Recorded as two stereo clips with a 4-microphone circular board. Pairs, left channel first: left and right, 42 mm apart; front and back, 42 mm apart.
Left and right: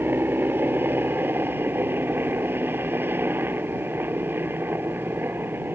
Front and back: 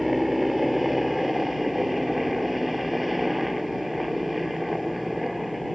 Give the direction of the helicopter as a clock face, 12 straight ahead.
3 o'clock.